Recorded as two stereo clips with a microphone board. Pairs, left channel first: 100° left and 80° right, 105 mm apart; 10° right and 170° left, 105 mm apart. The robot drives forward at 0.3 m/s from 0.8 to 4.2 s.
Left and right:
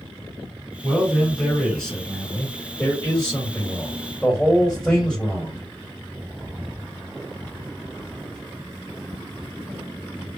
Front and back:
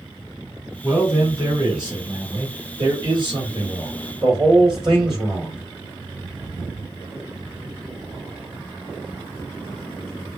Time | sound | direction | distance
0.8 | a man speaking | straight behind | 1.2 m